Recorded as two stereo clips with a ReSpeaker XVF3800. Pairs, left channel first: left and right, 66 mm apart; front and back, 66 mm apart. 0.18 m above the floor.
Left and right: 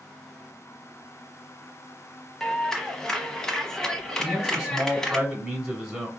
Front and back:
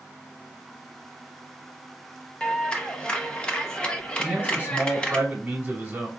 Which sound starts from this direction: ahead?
A clap, at 2.4 s.